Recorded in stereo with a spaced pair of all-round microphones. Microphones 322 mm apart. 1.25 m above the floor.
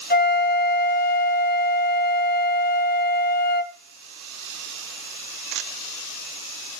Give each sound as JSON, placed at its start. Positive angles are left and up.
{"t": 0.1, "sound": "a flute", "side_deg": 30, "distance_m": 1.0}